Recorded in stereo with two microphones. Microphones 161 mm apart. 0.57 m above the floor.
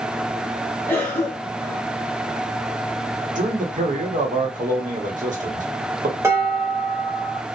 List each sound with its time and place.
0.9 s a cough: 10° left (ahead or behind), 1.0 m
3.4 s a man speaking: 55° right (ahead or behind), 1.0 m
6.2 s dishes clattering: 20° right (ahead or behind), 1.6 m